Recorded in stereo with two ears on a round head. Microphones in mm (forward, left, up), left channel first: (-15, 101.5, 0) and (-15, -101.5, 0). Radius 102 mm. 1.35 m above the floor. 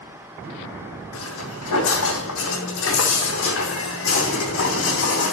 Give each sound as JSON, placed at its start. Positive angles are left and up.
{"t": 1.1, "sound": "footsteps", "side_deg": 70, "distance_m": 4.0}